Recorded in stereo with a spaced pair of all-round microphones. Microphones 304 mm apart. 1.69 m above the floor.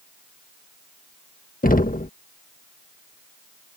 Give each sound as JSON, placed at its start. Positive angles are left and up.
{"t": 1.6, "sound": "knocking", "side_deg": 30}